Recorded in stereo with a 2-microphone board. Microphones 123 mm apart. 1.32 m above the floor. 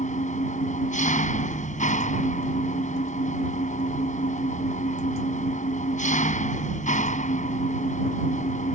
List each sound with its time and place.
0.0 s an engine running: 85° left